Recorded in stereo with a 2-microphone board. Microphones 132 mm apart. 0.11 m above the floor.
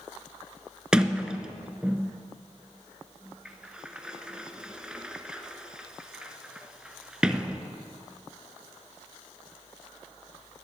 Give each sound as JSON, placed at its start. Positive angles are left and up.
{"t": 0.9, "sound": "a sliding door", "side_deg": -5, "distance_m": 0.7}